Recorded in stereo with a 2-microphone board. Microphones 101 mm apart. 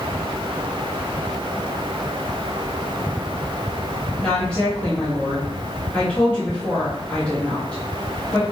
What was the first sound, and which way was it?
A woman speaking, 15° left (ahead or behind).